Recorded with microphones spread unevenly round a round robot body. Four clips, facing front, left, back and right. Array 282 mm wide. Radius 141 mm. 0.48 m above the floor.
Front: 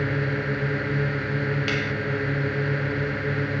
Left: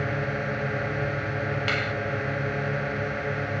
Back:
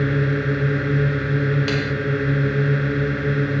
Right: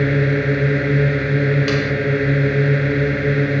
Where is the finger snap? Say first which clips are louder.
Right 9 dB, back 4 dB; 140° right.